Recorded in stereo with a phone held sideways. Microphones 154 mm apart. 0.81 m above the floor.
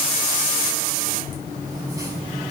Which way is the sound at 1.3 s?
25° right (ahead or behind).